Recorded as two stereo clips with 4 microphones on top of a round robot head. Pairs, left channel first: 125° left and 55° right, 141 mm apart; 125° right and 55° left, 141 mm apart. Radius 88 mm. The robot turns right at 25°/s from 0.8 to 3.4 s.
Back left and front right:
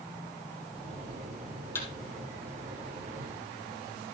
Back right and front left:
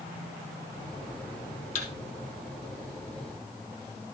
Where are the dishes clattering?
I don't hear dishes clattering.